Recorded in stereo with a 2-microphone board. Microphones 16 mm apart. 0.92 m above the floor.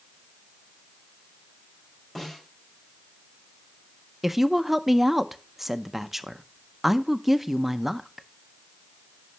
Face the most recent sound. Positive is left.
turn(degrees=-20)  # may be behind; listen again after turning